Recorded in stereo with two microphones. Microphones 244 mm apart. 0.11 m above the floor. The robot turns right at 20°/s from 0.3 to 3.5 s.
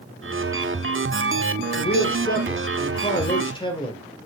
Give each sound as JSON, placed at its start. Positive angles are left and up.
{"t": 1.8, "sound": "a man speaking", "azimuth_deg": 120, "distance_m": 2.5}